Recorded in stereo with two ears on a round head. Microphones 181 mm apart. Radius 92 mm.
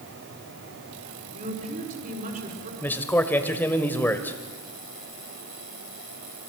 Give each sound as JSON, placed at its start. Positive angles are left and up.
{"t": 1.3, "sound": "a woman speaking", "side_deg": -40, "distance_m": 5.5}
{"t": 2.8, "sound": "a man speaking", "side_deg": 10, "distance_m": 1.7}